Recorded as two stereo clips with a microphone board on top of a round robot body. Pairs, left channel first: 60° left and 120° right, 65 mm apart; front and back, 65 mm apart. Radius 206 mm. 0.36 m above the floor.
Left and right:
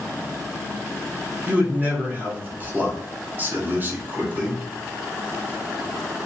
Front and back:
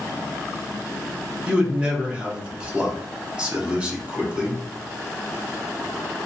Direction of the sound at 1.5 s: 125° right.